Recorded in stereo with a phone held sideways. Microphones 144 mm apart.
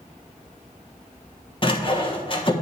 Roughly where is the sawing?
Left.